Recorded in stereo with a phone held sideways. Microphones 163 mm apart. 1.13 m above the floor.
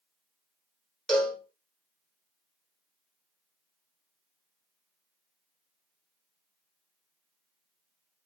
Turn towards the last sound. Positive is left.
turn(degrees=5)  # may be behind; listen again after turning